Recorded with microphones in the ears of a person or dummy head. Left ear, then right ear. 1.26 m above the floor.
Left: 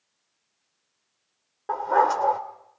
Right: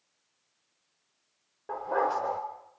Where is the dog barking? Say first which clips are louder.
Left 7 dB; 45° left (ahead or behind), 2 m.